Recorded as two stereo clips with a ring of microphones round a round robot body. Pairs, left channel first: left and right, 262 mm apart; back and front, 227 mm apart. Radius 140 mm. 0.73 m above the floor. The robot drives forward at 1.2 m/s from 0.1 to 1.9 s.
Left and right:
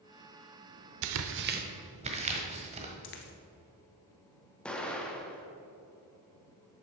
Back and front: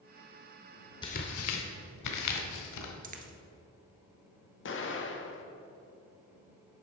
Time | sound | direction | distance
1.0 | tearing paper | 105° right | 0.6 m
3.0 | a dropped coin | 50° left | 1.2 m
4.7 | an explosion | 175° left | 1.4 m